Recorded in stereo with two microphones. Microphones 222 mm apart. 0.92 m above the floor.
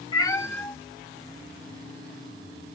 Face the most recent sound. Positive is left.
turn(degrees=-50)  # may be behind; listen again after turning